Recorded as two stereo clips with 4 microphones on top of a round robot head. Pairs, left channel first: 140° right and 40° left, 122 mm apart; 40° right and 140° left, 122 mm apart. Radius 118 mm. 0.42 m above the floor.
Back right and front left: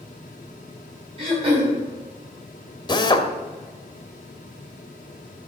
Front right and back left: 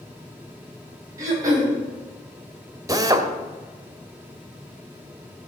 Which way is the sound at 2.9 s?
175° right.